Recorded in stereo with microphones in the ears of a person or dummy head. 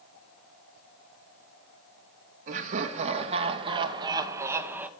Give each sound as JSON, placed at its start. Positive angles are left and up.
{"t": 2.5, "sound": "laughter", "side_deg": -50, "distance_m": 2.0}